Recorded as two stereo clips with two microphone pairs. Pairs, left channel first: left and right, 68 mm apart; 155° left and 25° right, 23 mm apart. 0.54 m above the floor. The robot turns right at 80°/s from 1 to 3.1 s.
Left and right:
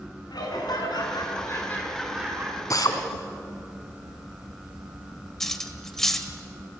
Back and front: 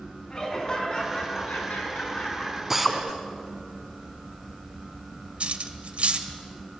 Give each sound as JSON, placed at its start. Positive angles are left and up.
{"t": 0.3, "sound": "laughter", "azimuth_deg": 95, "distance_m": 7.0}
{"t": 2.7, "sound": "a drill", "azimuth_deg": 50, "distance_m": 3.0}
{"t": 5.4, "sound": "cutlery clinking", "azimuth_deg": 5, "distance_m": 1.6}